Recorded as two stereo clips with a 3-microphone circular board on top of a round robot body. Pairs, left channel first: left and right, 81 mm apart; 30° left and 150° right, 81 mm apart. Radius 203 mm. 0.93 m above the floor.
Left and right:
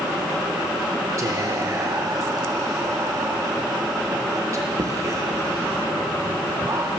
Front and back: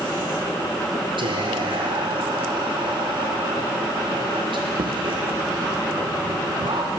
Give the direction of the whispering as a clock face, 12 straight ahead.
5 o'clock.